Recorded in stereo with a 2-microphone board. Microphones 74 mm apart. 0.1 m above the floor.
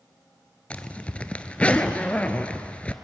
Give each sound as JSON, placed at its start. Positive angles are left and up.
{"t": 0.7, "sound": "a zipper", "side_deg": 20, "distance_m": 0.9}